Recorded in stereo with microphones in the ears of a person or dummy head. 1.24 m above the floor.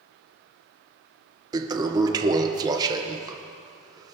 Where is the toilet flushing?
20° right (ahead or behind), 0.9 m.